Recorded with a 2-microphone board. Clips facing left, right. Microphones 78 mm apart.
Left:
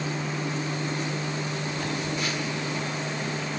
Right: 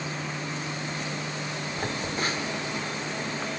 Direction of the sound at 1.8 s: 35° right (ahead or behind).